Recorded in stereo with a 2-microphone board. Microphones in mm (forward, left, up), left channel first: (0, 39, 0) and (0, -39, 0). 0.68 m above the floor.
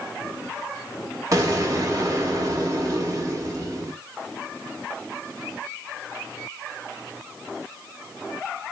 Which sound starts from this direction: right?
An explosion, at 1.3 s.